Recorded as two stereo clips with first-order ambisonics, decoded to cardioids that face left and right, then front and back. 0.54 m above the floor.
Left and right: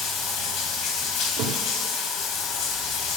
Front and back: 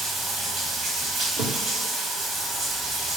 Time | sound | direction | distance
0.0 | running water | 120° left | 1.3 m
1.4 | a thud | 130° right | 2 m